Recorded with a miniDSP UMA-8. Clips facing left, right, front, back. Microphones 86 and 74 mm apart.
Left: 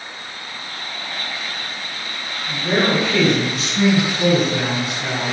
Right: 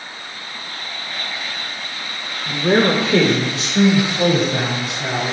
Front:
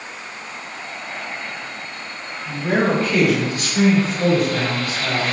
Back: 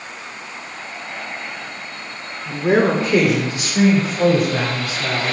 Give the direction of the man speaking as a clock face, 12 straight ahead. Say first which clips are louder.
Right 3 dB, back 3 dB; 4 o'clock.